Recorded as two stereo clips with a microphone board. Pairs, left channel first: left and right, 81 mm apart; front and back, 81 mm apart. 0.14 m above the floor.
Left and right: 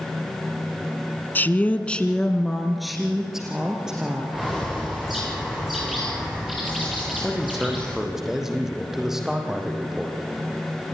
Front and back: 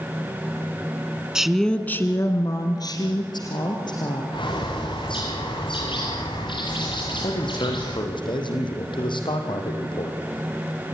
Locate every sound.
1.4 s a woman speaking: 110° left, 1.3 m; by 4.2 s 10° right, 3.5 m
4.3 s a bird: straight ahead, 5.5 m
7.2 s a man speaking: 5° right, 5 m